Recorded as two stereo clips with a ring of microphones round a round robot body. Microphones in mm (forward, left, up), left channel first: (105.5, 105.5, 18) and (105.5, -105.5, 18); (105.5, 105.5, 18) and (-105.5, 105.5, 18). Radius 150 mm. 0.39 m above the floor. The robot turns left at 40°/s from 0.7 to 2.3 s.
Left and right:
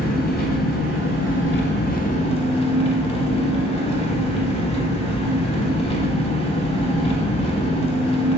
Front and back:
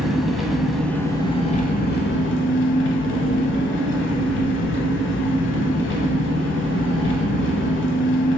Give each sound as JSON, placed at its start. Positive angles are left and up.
{"t": 0.0, "sound": "an engine running", "azimuth_deg": 90, "distance_m": 0.8}